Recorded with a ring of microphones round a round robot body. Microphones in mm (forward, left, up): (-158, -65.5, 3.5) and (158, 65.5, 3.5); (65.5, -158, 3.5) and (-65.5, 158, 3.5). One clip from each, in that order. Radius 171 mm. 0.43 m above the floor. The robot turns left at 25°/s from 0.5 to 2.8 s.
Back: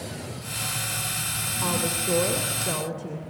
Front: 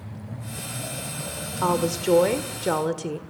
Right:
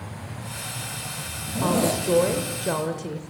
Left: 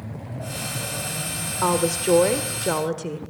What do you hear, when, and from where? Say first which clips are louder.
1.6 s a woman speaking: front 6 dB, left 2 dB; 70° left, 1.3 m; by 3.2 s 40° left, 1.3 m